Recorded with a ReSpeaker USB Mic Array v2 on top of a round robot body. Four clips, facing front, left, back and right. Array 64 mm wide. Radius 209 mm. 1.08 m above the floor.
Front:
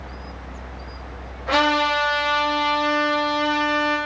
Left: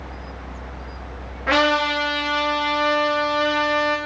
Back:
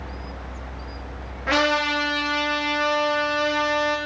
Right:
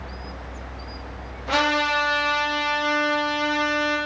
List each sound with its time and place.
1.5 s a trumpet: 115° left, 4.5 m